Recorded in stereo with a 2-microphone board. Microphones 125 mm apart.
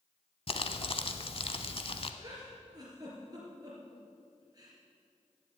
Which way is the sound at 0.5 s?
50° left (ahead or behind).